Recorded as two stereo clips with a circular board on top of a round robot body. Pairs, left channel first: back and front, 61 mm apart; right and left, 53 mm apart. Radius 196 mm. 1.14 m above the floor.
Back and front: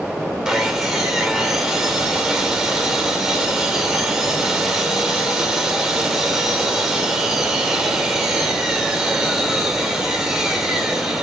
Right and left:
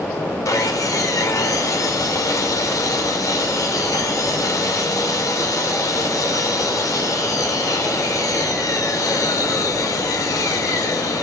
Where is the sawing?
80° right, 2 m.